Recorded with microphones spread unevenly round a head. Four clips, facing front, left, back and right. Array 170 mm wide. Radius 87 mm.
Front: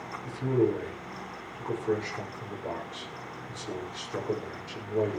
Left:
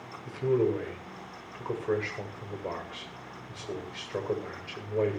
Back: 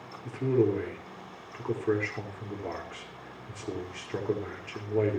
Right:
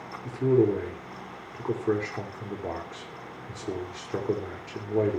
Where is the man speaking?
110° right, 5.5 m.